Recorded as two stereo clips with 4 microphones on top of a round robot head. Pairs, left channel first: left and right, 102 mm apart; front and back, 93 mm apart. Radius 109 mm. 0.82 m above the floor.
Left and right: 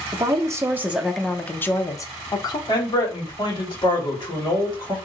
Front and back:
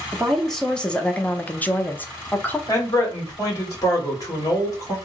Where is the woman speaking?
85° right, 0.9 m; by 2.6 s 65° left, 1.1 m.